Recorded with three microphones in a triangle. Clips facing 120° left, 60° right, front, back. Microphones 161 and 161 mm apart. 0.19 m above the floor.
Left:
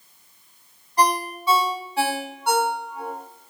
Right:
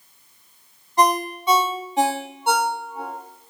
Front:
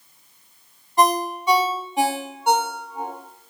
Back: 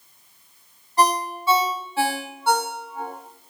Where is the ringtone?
35° right, 0.5 m.